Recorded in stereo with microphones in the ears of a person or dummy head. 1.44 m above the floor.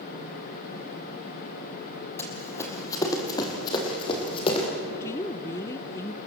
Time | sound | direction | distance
2.2 | running footsteps | 15° left (ahead or behind) | 3.5 m
4.9 | a woman speaking | 20° left (ahead or behind) | 0.7 m